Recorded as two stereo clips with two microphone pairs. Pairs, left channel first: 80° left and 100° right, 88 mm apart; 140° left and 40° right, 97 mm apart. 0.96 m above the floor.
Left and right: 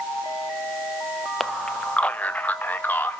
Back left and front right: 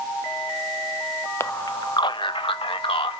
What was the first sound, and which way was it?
A man speaking, 160° left.